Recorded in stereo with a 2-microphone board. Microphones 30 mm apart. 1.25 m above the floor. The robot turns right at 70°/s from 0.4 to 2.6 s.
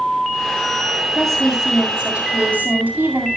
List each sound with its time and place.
1.1 s a woman speaking: 170° left, 7.5 m; by 3.3 s 90° right, 7.5 m